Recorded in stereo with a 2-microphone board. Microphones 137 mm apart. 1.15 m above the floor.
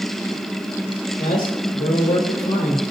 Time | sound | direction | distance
1.2 | a man speaking | 65° left (ahead or behind) | 1.6 m